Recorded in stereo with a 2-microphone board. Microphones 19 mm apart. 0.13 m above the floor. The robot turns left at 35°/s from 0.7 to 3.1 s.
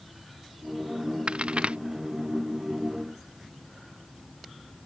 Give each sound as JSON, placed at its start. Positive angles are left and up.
{"t": 1.3, "sound": "a crack", "side_deg": -70}